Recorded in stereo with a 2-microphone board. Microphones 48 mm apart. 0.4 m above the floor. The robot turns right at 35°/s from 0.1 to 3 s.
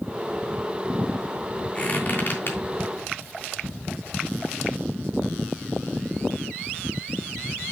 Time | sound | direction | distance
1.8 | a squeak | 25° left (ahead or behind) | 3 m